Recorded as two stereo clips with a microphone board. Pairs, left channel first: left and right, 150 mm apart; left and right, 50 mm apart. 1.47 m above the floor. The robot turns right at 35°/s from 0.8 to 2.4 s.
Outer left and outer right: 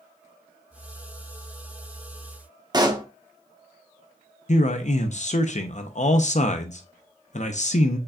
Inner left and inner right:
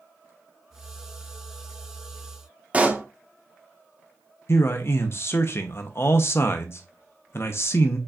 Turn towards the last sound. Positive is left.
turn(degrees=50)  # may be behind; listen again after turning